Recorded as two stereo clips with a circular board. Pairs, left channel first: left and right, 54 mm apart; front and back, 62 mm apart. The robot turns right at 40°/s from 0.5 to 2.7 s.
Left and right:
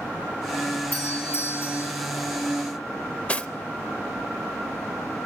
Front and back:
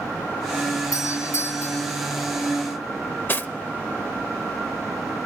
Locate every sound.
0.9 s a doorbell: 25° left, 8 m; by 1.9 s 65° left, 8 m
3.3 s cutlery clinking: 35° left, 0.7 m